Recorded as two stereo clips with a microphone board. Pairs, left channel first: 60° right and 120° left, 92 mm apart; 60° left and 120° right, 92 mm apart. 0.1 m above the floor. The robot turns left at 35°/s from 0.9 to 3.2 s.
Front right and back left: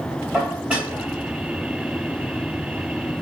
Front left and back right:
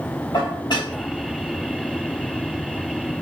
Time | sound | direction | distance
0.3 | dishes clattering | 45° left | 1.6 m